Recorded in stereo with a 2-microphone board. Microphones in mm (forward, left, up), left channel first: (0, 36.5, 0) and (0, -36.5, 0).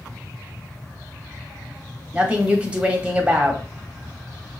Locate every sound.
2.1 s a woman speaking: 15° right (ahead or behind), 1.1 m